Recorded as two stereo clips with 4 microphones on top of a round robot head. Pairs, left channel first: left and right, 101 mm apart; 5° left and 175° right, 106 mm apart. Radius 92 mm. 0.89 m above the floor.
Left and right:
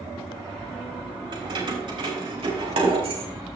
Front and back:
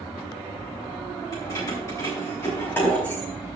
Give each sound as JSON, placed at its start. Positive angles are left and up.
{"t": 1.3, "sound": "keys jangling", "azimuth_deg": -55, "distance_m": 4.0}